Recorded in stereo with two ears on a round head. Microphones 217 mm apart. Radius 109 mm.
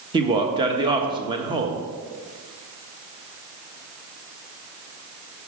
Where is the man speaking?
20° right (ahead or behind), 1.2 m.